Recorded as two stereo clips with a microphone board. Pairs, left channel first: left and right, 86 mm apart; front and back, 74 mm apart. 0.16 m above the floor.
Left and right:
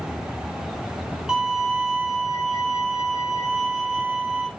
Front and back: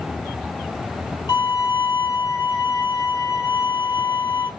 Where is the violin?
10° right, 1.6 m.